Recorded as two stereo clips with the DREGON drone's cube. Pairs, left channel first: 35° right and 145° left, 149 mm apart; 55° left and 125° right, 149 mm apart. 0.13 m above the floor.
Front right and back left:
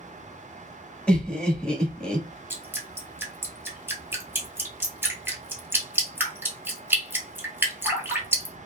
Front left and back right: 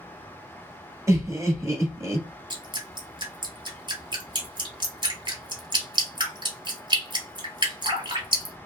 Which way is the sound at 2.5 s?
150° right.